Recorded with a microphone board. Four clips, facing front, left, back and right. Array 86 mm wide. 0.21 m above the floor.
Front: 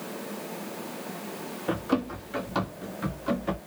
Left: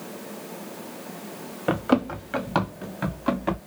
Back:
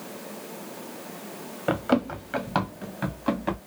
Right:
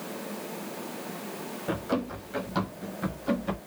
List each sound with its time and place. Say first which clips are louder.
1.7 s running footsteps: left 8 dB, back 4 dB; 130° left, 1.9 m; by 3.6 s 120° left, 3 m